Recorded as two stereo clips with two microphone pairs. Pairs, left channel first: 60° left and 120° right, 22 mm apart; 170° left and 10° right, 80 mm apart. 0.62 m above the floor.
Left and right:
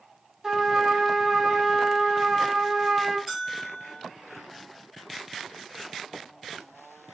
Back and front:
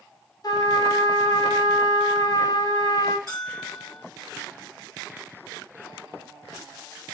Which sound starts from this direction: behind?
A trumpet, at 0.4 s.